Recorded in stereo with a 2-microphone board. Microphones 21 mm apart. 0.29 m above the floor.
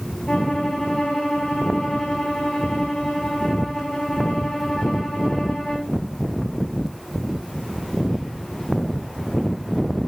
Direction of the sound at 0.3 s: 50° left (ahead or behind).